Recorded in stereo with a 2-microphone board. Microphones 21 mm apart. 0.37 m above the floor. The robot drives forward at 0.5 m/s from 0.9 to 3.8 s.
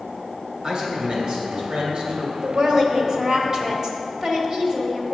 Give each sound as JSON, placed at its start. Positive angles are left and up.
{"t": 0.6, "sound": "a man speaking", "side_deg": -45, "distance_m": 2.0}
{"t": 2.4, "sound": "a woman speaking", "side_deg": -40, "distance_m": 1.1}